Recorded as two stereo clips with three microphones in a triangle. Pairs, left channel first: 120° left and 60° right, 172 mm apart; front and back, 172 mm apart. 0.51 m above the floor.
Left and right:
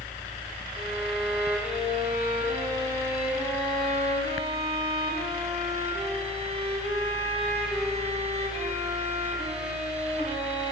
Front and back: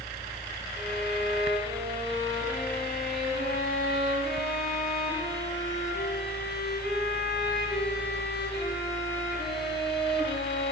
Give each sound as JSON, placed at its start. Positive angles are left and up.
{"t": 0.7, "sound": "a violin", "azimuth_deg": -5, "distance_m": 3.5}